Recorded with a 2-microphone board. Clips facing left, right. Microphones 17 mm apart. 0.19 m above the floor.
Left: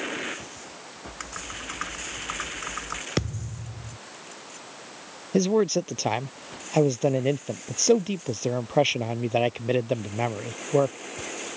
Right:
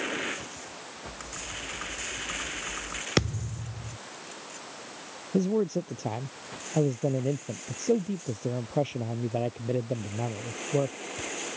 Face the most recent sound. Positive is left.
turn(degrees=55)  # may be behind; listen again after turning